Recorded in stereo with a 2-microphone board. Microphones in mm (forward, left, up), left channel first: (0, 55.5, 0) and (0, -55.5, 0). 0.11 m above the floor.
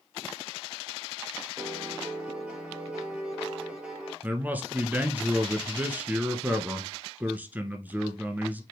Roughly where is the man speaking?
Centre.